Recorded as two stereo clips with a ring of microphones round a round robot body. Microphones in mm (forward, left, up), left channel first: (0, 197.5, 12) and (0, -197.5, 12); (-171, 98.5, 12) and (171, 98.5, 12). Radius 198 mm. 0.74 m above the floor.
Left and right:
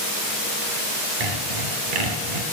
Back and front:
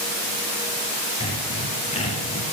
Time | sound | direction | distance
1.2 | sawing | 105° right | 2.5 m